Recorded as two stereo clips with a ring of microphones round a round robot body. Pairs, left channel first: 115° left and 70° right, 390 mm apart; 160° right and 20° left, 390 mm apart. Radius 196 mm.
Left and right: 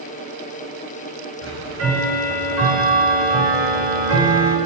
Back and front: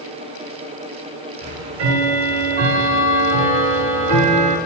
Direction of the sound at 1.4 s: 10° right.